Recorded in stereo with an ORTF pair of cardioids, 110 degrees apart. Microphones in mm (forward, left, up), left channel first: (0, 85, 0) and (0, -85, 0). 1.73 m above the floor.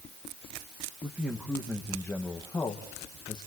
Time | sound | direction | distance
1.0 | a man speaking | 10° right | 2.5 m